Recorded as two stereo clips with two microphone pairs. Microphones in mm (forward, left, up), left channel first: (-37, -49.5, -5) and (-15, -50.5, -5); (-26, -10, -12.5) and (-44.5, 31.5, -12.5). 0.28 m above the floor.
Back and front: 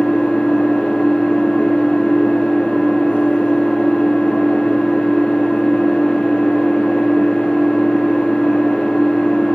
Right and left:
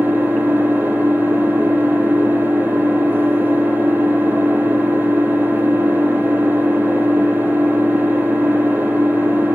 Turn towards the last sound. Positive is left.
turn(degrees=150)